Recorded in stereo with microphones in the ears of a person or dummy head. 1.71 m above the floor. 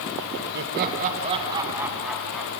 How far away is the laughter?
About 2.5 m.